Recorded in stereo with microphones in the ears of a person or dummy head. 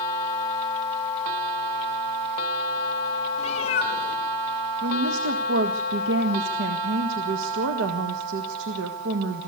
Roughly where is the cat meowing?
Left.